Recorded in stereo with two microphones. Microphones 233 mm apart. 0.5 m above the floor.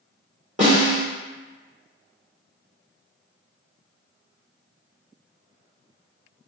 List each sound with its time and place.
0.6 s a snare drum: 30° right (ahead or behind), 1.7 m